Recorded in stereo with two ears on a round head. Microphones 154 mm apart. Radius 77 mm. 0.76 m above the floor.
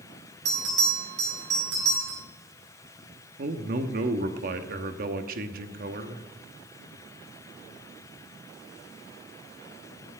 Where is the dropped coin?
I don't hear a dropped coin.